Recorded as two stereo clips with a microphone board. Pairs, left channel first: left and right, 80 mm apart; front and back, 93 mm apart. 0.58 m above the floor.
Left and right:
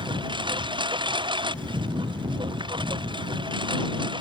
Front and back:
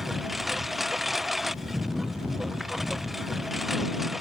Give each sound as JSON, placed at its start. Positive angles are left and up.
{"t": 0.0, "sound": "a lawn mower", "azimuth_deg": -90}